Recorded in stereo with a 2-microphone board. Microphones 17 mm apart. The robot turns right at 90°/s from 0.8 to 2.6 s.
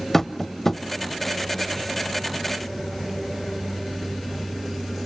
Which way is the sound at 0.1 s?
15° left (ahead or behind).